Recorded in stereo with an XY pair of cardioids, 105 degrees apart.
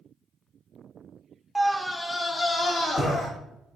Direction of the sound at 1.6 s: 5° right.